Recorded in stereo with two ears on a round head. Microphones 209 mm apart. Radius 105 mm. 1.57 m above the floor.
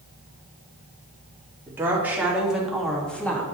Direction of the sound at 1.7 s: 10° right (ahead or behind).